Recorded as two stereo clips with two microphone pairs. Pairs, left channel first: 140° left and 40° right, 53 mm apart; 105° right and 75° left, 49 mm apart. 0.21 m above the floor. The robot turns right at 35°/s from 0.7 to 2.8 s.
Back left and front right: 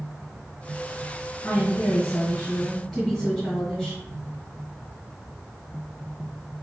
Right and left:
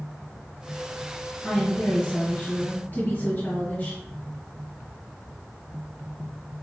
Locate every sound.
1.4 s a woman speaking: 170° right, 1.9 m; by 4.0 s 125° right, 1.9 m